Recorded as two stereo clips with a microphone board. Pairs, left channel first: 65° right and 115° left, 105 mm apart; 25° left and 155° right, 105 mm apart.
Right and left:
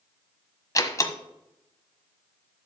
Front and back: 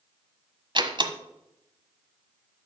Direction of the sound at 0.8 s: 120° right.